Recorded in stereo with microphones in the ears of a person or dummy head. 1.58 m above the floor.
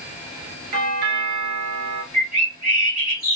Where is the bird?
10° right (ahead or behind), 1.8 m.